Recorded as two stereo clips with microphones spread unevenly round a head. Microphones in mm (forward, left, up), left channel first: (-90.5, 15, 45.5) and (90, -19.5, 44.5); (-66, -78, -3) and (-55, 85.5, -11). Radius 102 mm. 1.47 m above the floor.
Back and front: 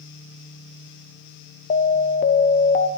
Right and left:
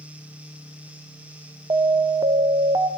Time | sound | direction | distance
1.7 | an alarm | 140° left | 0.9 m